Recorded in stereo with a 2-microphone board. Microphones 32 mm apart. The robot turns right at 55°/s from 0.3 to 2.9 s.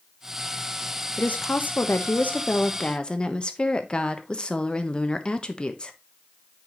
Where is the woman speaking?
55° left, 1.0 m; by 5.9 s 150° left, 1.0 m.